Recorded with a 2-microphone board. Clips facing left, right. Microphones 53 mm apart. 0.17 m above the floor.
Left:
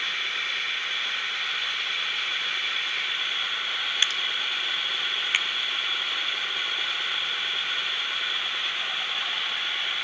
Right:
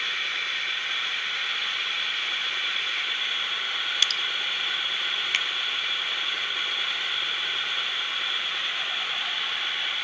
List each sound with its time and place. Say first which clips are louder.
4.0 s dripping: even; 20° left (ahead or behind), 0.7 m
5.3 s a finger snap: left 2 dB; 15° left (ahead or behind), 0.8 m